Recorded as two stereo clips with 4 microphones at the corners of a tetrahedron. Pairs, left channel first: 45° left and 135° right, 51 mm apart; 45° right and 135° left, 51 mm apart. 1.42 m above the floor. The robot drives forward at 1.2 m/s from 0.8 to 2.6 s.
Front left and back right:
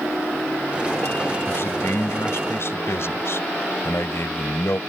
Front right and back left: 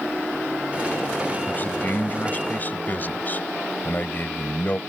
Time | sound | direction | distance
1.5 | a man speaking | 10° left | ?